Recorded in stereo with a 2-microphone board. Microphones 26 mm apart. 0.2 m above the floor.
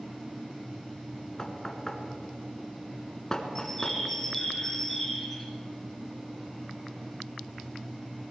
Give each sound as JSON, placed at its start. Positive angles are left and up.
{"t": 1.4, "sound": "knocking", "side_deg": 25, "distance_m": 1.5}
{"t": 3.5, "sound": "a bird", "side_deg": 10, "distance_m": 3.0}